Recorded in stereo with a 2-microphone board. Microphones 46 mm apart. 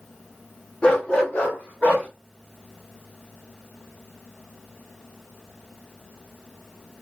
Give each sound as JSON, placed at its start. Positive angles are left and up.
{"t": 0.8, "sound": "a dog barking", "side_deg": 20, "distance_m": 1.0}